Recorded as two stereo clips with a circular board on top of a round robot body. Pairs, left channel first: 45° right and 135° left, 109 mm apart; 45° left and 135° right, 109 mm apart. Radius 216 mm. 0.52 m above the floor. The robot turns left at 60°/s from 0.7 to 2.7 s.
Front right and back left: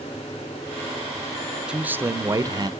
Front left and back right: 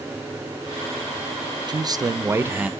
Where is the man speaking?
145° right, 0.7 m; by 2.7 s 150° left, 0.7 m.